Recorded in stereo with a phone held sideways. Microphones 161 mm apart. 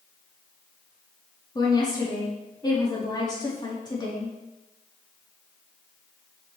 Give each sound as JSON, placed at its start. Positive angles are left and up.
{"t": 1.6, "sound": "a woman speaking", "side_deg": 25, "distance_m": 3.0}